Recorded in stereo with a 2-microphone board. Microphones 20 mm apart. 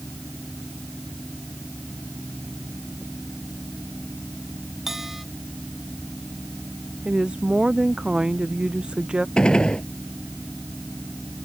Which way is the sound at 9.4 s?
55° left (ahead or behind).